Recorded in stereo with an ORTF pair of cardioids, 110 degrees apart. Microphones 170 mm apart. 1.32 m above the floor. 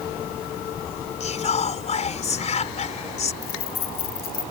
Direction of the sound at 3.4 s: 60° left.